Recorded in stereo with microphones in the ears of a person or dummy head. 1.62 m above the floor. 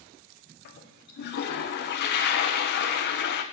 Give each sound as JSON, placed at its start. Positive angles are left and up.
{"t": 0.7, "sound": "a toilet flushing", "side_deg": 60, "distance_m": 1.0}